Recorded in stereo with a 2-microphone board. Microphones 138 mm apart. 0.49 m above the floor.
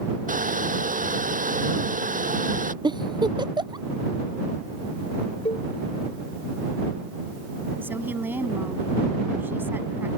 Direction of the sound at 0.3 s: 75° right (ahead or behind).